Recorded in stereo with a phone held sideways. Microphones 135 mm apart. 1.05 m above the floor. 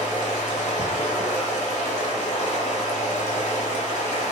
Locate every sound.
0.0 s running water: 60° left (ahead or behind), 1.6 m